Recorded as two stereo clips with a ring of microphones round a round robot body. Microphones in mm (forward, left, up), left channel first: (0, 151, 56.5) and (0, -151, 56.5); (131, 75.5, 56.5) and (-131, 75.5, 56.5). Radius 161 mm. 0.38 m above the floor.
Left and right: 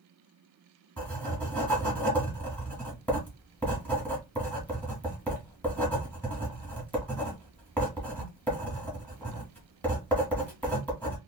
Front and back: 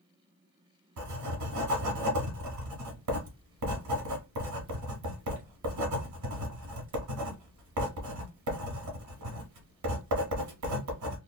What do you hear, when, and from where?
1.0 s writing: 175° left, 1.2 m